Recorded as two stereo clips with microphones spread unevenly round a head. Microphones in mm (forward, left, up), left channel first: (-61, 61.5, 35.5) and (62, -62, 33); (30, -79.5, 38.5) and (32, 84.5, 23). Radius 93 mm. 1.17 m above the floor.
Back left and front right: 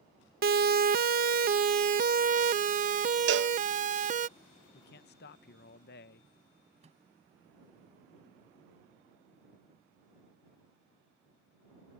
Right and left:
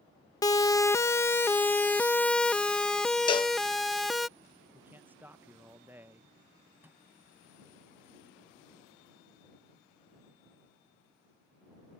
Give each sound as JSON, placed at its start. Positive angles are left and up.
{"t": 0.4, "sound": "a siren", "azimuth_deg": -20}
{"t": 3.3, "sound": "a cowbell", "azimuth_deg": -40}
{"t": 4.7, "sound": "a man speaking", "azimuth_deg": 170}
{"t": 6.8, "sound": "a microwave", "azimuth_deg": 10}